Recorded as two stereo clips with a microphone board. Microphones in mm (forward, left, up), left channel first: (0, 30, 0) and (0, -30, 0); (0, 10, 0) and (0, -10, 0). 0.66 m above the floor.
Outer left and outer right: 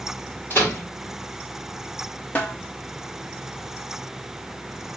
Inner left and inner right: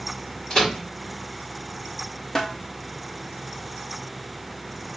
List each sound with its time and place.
0.5 s a microwave: 35° left (ahead or behind), 1.6 m
2.4 s a snare drum: 30° left (ahead or behind), 0.8 m